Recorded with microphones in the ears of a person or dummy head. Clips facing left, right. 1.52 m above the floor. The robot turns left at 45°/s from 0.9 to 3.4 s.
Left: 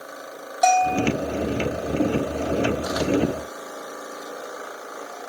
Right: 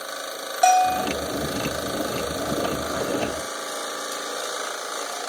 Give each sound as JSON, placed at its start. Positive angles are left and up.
{"t": 0.6, "sound": "a bell", "side_deg": -5, "distance_m": 1.1}